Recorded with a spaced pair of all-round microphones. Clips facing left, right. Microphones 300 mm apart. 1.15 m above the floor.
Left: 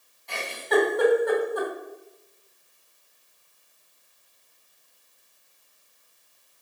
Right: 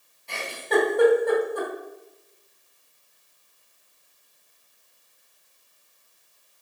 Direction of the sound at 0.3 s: 35° right (ahead or behind).